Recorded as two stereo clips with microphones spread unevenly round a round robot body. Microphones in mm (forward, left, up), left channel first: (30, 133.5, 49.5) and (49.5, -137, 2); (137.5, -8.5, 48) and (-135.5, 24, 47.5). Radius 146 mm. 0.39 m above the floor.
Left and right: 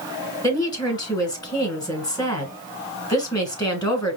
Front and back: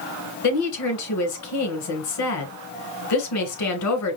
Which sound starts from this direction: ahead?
A woman speaking, at 0.4 s.